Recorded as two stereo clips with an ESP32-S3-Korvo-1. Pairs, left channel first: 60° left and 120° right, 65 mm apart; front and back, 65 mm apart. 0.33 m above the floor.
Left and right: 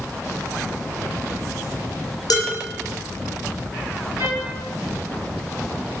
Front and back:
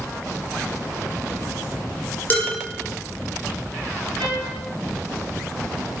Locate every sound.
2.3 s dishes clattering: 65° left, 3.5 m
4.2 s a trumpet: 80° left, 3.5 m